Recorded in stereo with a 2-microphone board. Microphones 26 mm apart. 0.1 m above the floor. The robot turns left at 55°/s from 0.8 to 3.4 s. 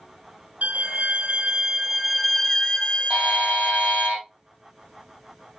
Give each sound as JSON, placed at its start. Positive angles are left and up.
{"t": 0.6, "sound": "a violin", "azimuth_deg": -105, "distance_m": 0.6}
{"t": 3.1, "sound": "a buzzer", "side_deg": -50, "distance_m": 3.5}